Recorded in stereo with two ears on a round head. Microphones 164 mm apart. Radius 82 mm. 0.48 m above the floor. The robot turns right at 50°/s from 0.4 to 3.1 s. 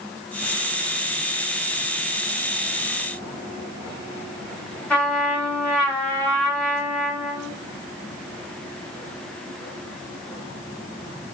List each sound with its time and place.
4.9 s a trumpet: 5° left (ahead or behind), 1.2 m